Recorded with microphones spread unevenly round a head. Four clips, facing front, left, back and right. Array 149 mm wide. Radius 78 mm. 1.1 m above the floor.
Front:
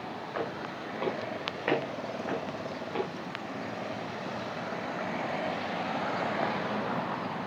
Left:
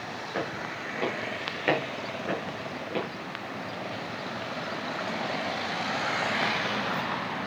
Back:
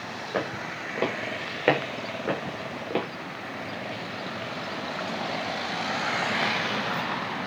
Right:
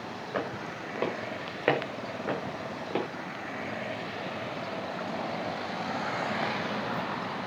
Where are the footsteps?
150° right, 4.5 m; by 3.0 s 160° right, 6 m.